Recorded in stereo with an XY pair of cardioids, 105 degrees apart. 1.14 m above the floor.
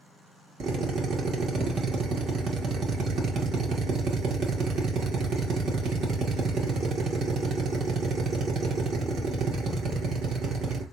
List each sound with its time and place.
0.6 s a drill: 60° right, 1.2 m